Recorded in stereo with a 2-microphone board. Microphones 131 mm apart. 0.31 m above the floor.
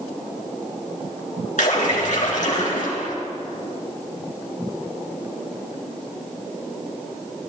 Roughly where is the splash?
Left.